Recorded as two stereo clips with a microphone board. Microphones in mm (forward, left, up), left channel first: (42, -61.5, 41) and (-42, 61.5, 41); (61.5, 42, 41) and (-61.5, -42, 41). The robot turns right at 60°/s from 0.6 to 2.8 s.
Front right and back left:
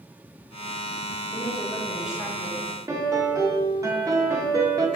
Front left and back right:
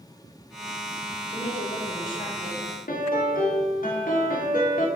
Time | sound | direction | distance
1.3 | a woman speaking | 5° right | 1.2 m
2.9 | a piano | 55° left | 0.7 m